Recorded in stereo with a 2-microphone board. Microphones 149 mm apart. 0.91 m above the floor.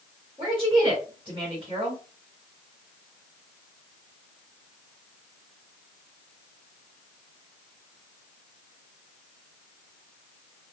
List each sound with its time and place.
0.4 s a woman speaking: 40° right (ahead or behind), 1.3 m